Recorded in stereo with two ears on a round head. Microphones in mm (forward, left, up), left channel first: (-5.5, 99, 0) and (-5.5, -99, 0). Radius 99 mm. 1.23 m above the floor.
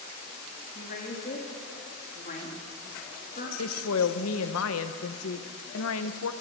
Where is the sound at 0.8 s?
40° left (ahead or behind), 1.9 m.